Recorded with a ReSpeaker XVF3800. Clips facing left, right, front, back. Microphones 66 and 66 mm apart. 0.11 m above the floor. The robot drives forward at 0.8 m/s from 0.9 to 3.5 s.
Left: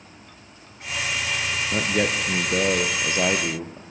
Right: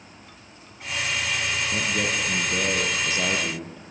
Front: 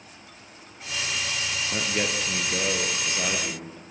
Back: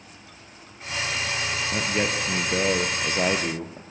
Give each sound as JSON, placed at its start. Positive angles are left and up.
{"t": 1.7, "sound": "a man speaking", "azimuth_deg": 95, "distance_m": 1.7}